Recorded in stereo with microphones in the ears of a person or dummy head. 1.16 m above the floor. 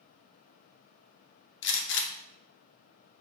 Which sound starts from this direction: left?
A gunshot, at 1.6 s.